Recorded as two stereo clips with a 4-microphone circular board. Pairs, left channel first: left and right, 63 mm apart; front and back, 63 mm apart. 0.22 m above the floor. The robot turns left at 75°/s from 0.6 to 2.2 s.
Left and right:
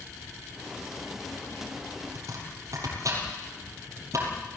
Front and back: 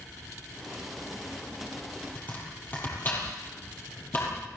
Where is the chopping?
55° right, 5 m; by 4.3 s 60° right, 5 m.